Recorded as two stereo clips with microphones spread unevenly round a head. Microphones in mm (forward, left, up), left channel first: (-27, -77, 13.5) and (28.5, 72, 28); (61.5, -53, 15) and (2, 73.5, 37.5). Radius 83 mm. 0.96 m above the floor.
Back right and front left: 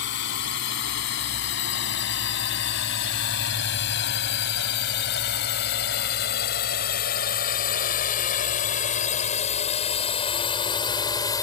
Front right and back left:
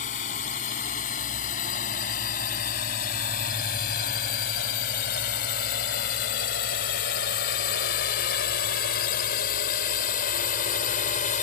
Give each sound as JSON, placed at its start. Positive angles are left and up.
{"t": 0.0, "sound": "a drone", "azimuth_deg": -105}